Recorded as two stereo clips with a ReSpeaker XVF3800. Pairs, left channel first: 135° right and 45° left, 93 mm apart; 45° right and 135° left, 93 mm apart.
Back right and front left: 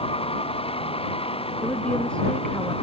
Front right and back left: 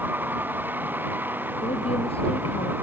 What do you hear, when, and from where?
0.0 s a vehicle: 155° right
1.6 s a woman speaking: 55° right